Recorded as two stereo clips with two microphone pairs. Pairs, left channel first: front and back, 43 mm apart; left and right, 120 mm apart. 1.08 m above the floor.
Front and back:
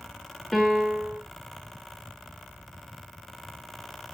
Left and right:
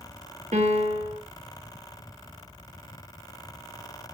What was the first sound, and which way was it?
A piano, 90° right.